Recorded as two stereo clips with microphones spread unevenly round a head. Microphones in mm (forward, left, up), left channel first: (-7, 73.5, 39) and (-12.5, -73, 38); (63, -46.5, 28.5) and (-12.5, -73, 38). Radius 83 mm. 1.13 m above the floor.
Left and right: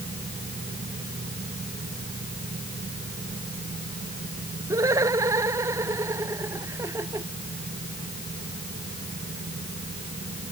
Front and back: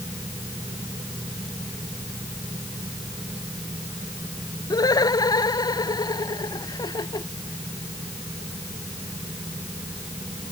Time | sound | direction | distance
4.7 | laughter | 20° right | ?